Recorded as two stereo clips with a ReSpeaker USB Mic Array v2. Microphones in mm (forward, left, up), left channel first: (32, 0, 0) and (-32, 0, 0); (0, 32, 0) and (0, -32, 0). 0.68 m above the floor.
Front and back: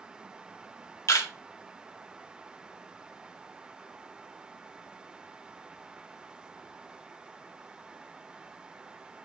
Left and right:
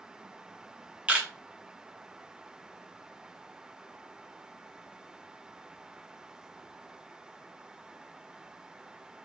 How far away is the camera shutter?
About 0.7 m.